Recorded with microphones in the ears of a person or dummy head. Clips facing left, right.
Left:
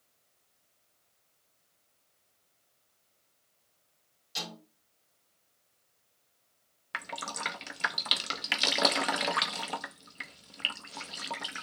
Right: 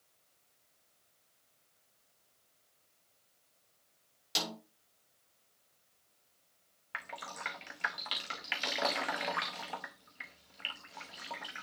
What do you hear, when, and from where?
4.3 s a snare drum: 85° right, 5 m
6.9 s dripping: 45° left (ahead or behind), 0.6 m